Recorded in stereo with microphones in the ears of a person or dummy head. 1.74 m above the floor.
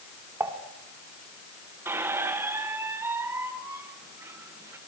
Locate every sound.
0.4 s dishes clattering: 10° right (ahead or behind), 2.5 m
1.9 s a squeak: 20° right (ahead or behind), 1.4 m